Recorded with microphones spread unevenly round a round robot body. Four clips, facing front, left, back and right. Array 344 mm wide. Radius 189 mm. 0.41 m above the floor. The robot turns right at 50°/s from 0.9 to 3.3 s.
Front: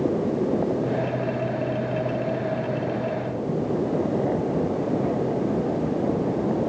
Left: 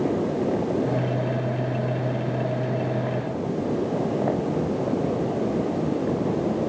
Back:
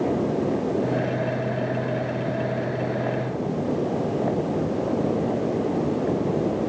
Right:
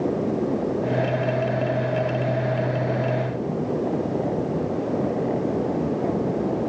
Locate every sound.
Only background noise.